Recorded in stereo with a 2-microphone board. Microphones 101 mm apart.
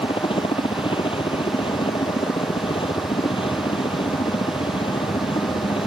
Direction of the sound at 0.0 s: 60° left (ahead or behind).